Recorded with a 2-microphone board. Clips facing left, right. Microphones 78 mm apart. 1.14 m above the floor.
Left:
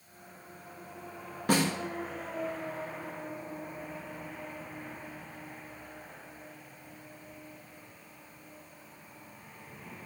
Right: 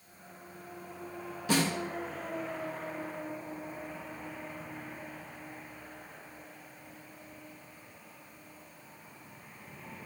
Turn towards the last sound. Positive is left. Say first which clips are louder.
# left 2 dB
turn(degrees=50)  # may be behind; listen again after turning